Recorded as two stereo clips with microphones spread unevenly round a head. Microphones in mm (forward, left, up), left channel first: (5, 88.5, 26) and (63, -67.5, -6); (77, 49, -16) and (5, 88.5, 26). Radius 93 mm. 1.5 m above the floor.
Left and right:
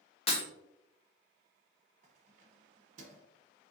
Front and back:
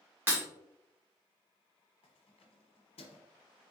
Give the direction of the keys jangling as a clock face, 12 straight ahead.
1 o'clock.